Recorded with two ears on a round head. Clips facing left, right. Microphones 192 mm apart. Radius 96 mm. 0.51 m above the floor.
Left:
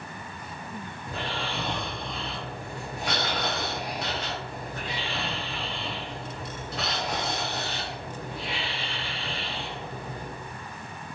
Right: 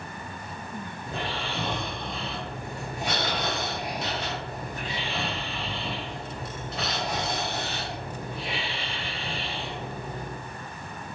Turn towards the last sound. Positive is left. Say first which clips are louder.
# even
turn(degrees=-25)  # may be behind; listen again after turning